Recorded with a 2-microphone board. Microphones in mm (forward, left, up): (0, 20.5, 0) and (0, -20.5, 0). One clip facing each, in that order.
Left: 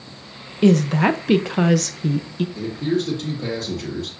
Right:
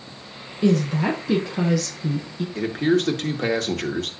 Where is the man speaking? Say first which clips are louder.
Right 4 dB; 80° right, 1.8 m.